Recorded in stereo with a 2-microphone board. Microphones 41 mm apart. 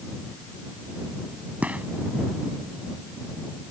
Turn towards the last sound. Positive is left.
turn(degrees=-35)  # may be behind; listen again after turning